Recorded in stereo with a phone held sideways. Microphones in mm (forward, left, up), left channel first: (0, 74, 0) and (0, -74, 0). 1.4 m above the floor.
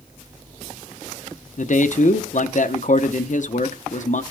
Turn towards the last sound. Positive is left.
turn(degrees=60)  # may be behind; listen again after turning